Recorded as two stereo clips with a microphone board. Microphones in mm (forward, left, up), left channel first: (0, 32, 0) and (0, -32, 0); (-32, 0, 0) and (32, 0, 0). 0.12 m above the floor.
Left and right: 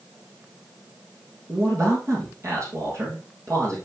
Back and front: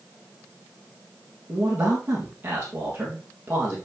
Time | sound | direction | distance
1.5 | a man speaking | 55° right | 3.5 m